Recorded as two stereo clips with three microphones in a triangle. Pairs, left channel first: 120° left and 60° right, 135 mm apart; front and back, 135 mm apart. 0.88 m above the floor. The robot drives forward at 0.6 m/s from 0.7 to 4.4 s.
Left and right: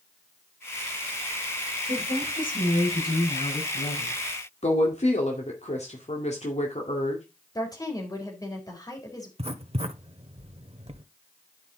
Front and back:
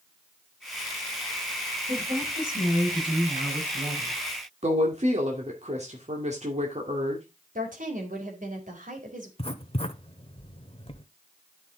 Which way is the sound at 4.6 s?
150° left.